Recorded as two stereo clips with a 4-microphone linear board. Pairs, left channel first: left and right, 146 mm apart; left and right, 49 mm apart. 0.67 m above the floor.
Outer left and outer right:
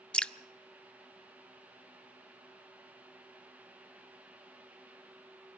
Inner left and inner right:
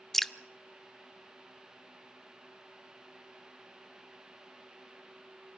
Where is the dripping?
10° left (ahead or behind), 0.5 m.